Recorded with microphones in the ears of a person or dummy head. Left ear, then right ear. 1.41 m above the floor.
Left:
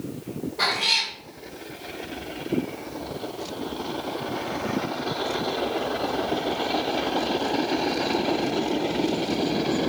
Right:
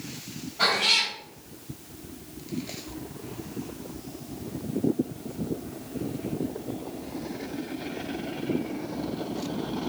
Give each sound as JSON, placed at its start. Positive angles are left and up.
{"t": 0.6, "sound": "a cat meowing", "side_deg": 60, "distance_m": 1.8}